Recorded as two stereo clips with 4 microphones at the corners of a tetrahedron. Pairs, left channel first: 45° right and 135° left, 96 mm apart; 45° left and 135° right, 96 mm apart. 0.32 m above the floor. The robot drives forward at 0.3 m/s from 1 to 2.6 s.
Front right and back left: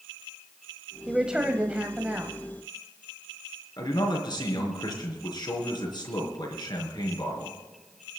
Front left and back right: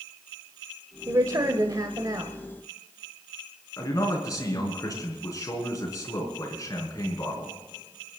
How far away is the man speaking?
About 4.5 m.